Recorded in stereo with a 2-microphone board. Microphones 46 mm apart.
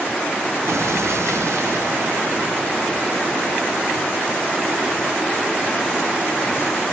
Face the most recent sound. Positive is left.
turn(degrees=-80)